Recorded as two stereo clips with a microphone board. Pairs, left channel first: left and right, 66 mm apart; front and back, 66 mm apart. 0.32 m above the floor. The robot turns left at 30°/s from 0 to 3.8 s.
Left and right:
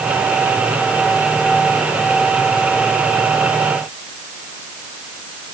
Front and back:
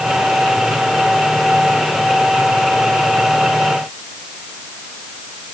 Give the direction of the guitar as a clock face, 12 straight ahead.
I don't hear a guitar.